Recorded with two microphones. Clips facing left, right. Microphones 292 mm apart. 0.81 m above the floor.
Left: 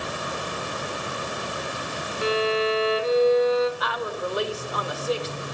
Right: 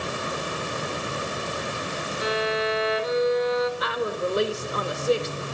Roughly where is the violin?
Left.